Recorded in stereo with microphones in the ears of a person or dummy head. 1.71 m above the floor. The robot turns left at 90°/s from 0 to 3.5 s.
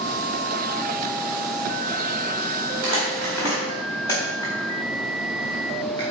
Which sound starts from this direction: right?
Crumpling, at 2.8 s.